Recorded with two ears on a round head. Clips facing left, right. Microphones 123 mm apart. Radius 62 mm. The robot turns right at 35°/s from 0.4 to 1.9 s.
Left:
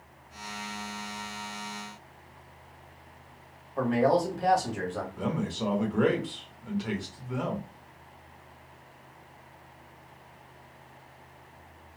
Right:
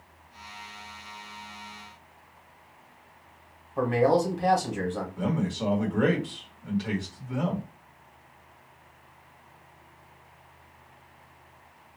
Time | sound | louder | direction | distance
3.8 | a man speaking | right 2 dB | centre (ahead or behind) | 1.4 m
5.2 | a man speaking | right 2 dB | centre (ahead or behind) | 1.1 m